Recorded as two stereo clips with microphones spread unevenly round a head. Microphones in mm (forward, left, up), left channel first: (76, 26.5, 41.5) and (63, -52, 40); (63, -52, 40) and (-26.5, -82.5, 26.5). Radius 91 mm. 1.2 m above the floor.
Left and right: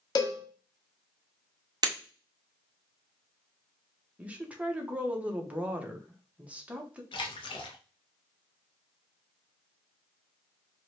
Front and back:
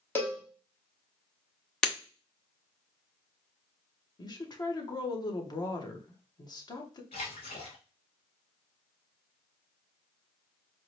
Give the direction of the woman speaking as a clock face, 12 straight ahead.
1 o'clock.